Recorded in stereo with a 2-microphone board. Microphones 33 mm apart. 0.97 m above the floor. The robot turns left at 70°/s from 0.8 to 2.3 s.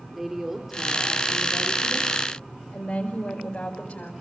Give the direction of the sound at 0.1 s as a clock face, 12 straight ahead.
12 o'clock.